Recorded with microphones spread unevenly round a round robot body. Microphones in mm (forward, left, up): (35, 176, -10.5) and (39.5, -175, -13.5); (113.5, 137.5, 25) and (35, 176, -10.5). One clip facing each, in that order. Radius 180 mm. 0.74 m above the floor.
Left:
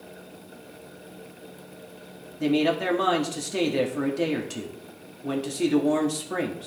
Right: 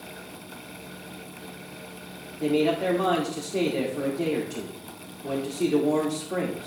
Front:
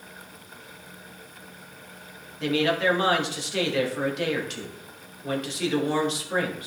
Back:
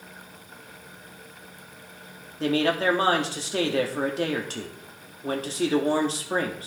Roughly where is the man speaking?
Behind left.